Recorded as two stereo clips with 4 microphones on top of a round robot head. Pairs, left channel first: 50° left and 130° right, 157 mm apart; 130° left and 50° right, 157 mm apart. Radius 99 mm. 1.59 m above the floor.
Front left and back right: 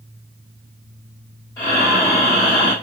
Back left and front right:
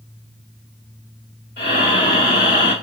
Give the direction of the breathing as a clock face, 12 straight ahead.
8 o'clock.